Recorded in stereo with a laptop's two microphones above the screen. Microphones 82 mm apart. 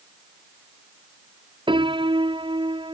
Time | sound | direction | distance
1.7 | a piano | 85° right | ?